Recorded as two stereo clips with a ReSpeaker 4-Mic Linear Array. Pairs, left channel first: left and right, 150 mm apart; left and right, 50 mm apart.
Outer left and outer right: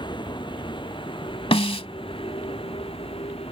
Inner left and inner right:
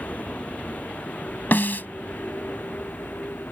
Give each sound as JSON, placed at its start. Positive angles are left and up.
{"t": 0.0, "sound": "a vehicle", "side_deg": 30}
{"t": 1.5, "sound": "a snare drum", "side_deg": 40}